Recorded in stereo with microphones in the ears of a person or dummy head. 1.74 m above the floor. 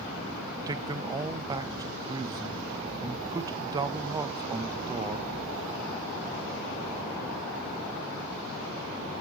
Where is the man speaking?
20° right (ahead or behind), 0.6 m.